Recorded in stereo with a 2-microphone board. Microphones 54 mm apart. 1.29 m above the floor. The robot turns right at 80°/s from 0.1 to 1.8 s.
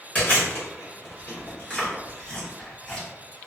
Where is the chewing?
25° left (ahead or behind), 1.6 m; by 3.1 s 20° left (ahead or behind), 1.6 m.